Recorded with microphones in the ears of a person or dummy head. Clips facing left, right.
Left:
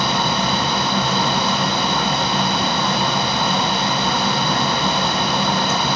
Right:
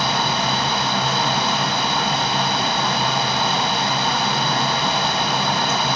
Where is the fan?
75° left (ahead or behind), 0.7 m.